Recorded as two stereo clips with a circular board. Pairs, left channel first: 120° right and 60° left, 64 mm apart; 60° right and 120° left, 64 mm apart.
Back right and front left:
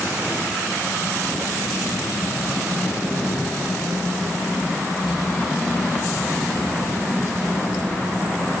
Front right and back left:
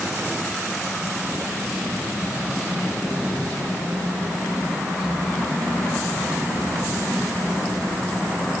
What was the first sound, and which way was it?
Only background noise.